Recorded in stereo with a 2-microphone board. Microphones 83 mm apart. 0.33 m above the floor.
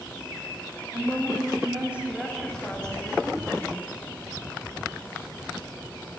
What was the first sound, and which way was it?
A woman speaking, 45° right (ahead or behind).